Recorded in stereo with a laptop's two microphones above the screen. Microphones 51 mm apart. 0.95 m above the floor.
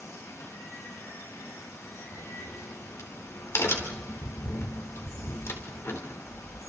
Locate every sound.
0.0 s running water: 80° left, 9.5 m
2.1 s a crack: 60° left (ahead or behind), 3.5 m